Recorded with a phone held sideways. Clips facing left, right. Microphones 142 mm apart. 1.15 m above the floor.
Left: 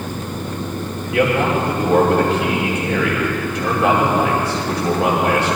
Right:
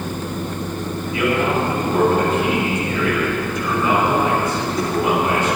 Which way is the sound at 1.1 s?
85° left.